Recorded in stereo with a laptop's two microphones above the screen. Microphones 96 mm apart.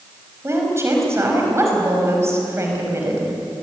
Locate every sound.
0.4 s a woman speaking: 30° right (ahead or behind), 5 m